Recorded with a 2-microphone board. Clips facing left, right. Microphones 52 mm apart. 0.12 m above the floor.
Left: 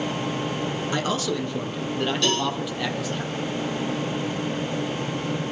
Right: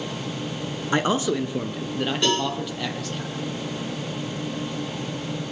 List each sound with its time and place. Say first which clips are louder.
0.9 s a man speaking: right 6 dB; 30° right (ahead or behind), 1.4 m; by 3.2 s 5° left (ahead or behind), 4 m
2.2 s a cowbell: right 2 dB; 20° right (ahead or behind), 9.5 m